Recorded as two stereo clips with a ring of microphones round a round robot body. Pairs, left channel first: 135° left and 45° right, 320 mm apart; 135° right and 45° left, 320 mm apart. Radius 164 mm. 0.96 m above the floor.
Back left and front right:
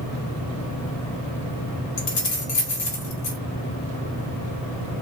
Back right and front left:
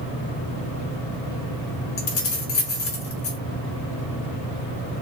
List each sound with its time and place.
2.0 s keys jangling: 175° left, 1.1 m